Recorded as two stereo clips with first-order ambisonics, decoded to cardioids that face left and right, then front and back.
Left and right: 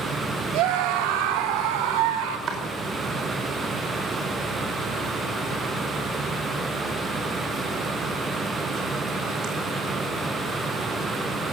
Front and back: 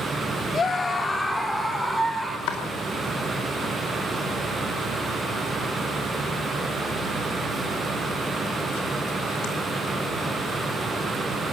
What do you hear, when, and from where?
0.5 s a scream: 70° right, 2.5 m; by 2.4 s 95° right, 5 m
2.5 s chopping: 30° right, 5 m